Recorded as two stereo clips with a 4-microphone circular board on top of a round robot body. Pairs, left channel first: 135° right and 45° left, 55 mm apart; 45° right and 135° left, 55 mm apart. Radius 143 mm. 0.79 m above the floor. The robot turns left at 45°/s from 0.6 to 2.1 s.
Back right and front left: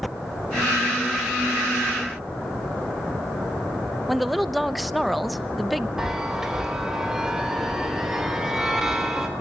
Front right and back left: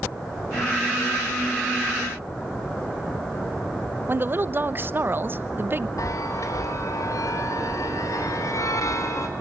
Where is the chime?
35° right, 3.5 m.